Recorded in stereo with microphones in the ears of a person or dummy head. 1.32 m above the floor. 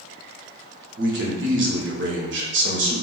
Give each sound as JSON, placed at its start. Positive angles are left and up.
{"t": 1.0, "sound": "a man speaking", "side_deg": -55, "distance_m": 0.7}